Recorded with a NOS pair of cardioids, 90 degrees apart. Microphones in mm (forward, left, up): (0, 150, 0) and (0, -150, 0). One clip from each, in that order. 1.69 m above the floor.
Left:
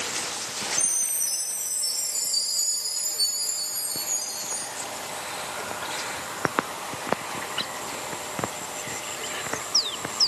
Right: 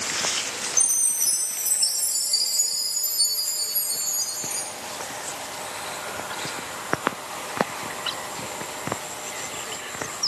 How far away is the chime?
About 3.5 m.